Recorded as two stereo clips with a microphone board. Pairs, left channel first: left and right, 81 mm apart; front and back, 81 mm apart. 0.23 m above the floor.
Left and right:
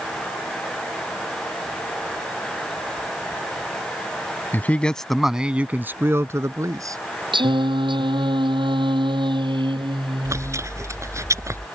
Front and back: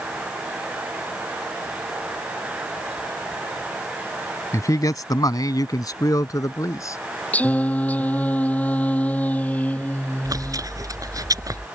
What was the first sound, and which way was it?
A man speaking, 30° left.